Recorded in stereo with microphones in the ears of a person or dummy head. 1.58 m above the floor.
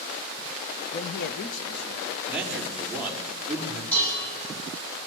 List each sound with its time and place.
0.9 s a man speaking: 30° left (ahead or behind), 0.7 m; by 2.1 s 75° left (ahead or behind), 2 m
2.3 s a man speaking: 5° right (ahead or behind), 4.5 m
3.9 s dishes clattering: 10° left (ahead or behind), 9 m